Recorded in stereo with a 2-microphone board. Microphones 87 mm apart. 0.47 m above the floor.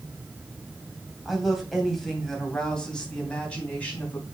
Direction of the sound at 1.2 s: 5° right (ahead or behind).